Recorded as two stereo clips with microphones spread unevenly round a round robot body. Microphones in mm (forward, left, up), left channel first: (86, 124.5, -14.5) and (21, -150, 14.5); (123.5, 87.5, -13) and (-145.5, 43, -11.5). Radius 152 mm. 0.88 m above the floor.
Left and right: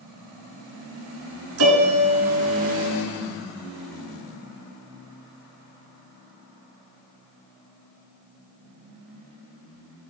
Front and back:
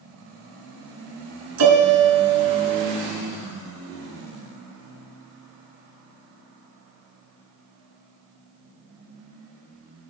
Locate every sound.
1.6 s a piano: 140° right, 1.8 m